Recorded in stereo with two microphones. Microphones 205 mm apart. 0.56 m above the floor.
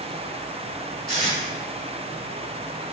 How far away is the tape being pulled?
About 1.9 m.